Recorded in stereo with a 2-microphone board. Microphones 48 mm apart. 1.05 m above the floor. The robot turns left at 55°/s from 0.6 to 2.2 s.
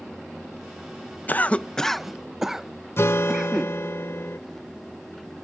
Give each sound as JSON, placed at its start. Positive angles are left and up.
{"t": 1.3, "sound": "a cough", "side_deg": 40}
{"t": 3.0, "sound": "a guitar", "side_deg": 60}